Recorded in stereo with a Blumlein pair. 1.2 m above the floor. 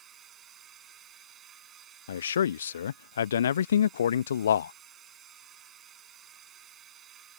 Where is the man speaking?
65° left.